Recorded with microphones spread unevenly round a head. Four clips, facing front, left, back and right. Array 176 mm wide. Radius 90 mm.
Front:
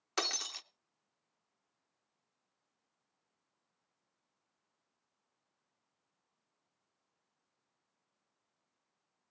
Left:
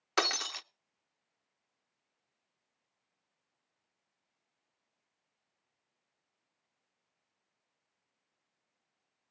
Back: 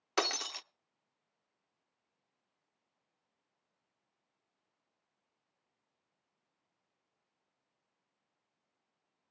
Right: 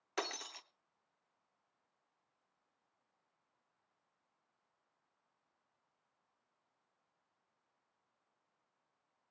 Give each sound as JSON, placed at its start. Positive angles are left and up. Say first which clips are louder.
{"t": 0.2, "sound": "breaking glass", "louder": "left 9 dB, back 5 dB", "azimuth_deg": 105, "distance_m": 0.6}